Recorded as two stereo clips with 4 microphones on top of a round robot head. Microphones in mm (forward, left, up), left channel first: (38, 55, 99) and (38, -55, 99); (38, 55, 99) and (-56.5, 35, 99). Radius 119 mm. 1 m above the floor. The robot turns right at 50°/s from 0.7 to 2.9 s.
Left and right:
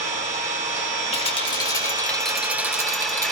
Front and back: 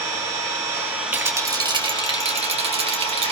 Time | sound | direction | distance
0.0 | an engine running | 105° right | 4.5 m
1.1 | a rattle | 120° left | 2 m